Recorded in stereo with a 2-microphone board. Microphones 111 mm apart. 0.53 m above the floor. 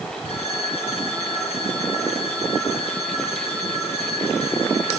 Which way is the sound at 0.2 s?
60° left (ahead or behind).